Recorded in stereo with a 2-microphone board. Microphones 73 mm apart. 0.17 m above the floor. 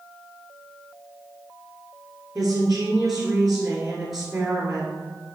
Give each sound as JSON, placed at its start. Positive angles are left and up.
{"t": 2.4, "sound": "a woman speaking", "side_deg": -5, "distance_m": 2.5}